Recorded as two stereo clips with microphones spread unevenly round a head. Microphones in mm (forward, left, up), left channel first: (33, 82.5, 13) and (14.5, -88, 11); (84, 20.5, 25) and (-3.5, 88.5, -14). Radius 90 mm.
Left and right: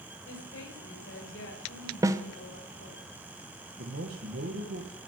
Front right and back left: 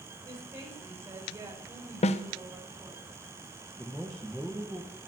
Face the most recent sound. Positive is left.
turn(degrees=-130)